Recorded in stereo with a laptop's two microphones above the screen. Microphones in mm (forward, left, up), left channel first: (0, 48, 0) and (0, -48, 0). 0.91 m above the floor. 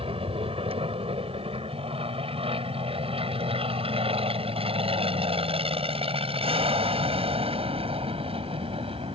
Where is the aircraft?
70° right (ahead or behind); by 9.2 s 75° right (ahead or behind).